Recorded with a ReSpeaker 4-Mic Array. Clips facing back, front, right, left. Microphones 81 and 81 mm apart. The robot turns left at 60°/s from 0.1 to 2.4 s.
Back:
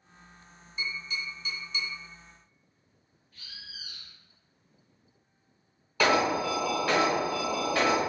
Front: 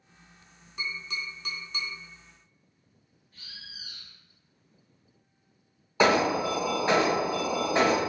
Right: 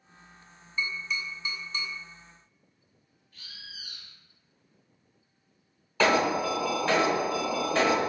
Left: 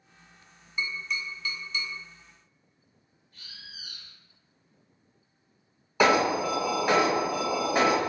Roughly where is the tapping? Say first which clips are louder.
Even, even; ahead.